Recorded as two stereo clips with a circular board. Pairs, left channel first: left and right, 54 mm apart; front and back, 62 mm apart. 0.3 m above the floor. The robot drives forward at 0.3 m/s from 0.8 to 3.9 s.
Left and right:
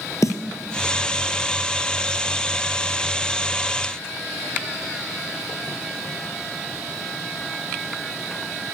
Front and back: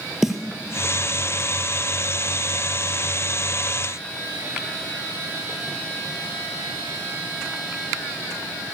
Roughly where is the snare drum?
Left.